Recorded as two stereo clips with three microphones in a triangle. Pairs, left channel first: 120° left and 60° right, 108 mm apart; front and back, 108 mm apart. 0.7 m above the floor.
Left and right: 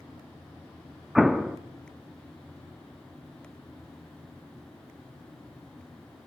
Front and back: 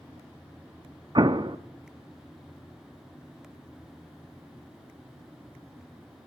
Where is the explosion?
145° right, 0.7 m.